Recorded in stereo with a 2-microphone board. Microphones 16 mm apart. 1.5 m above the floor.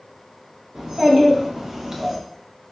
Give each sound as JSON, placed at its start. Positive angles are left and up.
{"t": 0.8, "sound": "a child speaking", "side_deg": -55, "distance_m": 1.3}